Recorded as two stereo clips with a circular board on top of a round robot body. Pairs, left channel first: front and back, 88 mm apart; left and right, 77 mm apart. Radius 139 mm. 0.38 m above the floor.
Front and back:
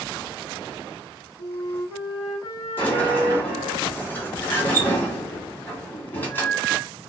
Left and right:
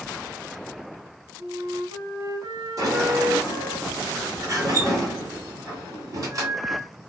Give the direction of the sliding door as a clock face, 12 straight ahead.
2 o'clock.